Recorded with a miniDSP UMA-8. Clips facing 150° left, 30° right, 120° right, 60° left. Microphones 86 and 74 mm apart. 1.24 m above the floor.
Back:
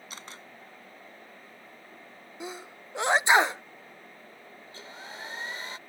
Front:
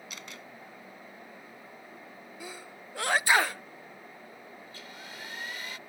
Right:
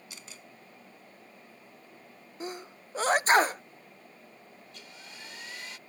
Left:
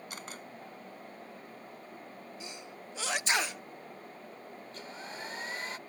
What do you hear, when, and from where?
0.1 s a camera shutter: 95° left
2.4 s a sneeze: 150° right
4.7 s a hair dryer: 95° left